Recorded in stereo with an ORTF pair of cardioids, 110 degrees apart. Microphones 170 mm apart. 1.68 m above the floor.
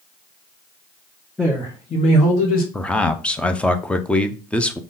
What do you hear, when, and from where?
1.4 s a man speaking: 5° left, 1.0 m; by 2.6 s 60° left, 1.4 m
2.7 s a man speaking: 5° left, 0.6 m